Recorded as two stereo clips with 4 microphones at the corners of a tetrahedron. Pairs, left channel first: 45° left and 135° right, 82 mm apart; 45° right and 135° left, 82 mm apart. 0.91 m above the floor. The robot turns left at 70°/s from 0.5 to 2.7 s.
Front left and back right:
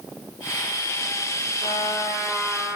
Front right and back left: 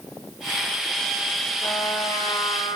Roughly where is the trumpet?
Ahead.